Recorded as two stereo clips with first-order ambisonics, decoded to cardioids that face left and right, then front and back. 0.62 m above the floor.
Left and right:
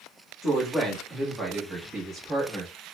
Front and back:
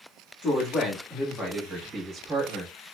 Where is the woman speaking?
15° left, 1.1 m; by 2.7 s 155° right, 1.2 m.